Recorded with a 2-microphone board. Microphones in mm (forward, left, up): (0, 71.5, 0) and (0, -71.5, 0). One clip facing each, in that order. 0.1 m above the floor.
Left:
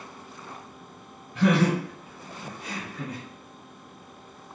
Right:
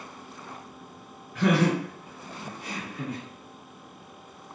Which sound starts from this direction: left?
Laughter, at 1.4 s.